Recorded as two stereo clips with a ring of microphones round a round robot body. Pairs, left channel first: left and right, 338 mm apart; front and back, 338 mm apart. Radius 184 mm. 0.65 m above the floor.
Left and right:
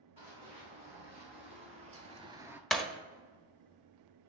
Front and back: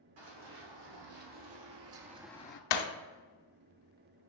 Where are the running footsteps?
165° right, 2.5 m; by 2.6 s 10° right, 0.7 m.